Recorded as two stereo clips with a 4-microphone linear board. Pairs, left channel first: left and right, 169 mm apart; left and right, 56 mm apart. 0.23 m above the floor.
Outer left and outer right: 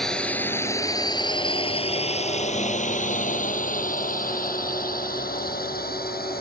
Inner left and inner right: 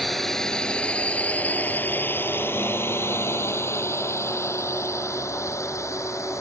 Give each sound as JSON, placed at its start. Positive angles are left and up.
{"t": 0.0, "sound": "a drone", "side_deg": 5}